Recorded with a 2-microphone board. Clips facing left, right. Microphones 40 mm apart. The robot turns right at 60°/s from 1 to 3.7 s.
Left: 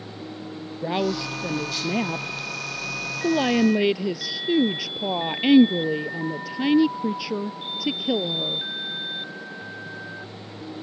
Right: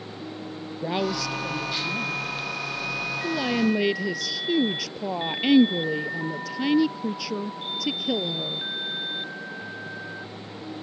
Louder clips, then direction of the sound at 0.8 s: Left 2 dB; 10° left.